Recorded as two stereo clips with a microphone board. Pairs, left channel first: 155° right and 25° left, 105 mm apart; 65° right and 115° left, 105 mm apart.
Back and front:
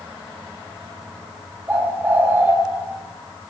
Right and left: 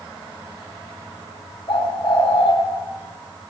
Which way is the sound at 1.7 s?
45° right.